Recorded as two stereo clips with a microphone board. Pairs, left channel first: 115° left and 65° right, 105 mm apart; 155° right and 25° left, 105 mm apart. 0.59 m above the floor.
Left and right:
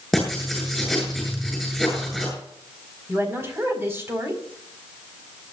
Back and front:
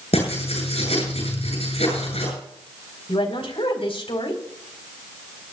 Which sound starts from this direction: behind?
Writing, at 0.1 s.